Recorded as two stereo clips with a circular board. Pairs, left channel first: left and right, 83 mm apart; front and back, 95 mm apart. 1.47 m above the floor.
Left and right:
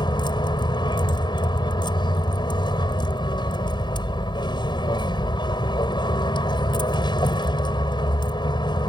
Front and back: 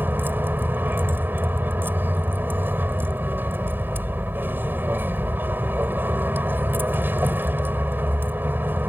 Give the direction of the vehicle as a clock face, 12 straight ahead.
8 o'clock.